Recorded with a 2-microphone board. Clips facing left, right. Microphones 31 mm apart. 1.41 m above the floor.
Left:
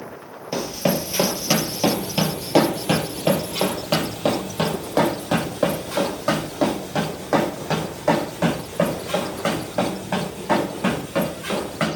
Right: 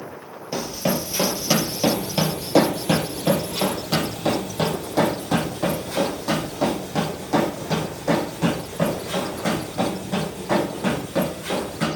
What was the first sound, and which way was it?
Running footsteps, 15° left (ahead or behind).